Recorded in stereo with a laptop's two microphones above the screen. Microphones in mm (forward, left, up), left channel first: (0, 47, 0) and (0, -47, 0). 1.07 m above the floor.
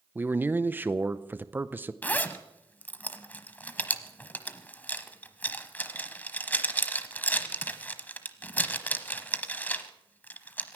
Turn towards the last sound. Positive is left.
turn(degrees=20)  # may be behind; listen again after turning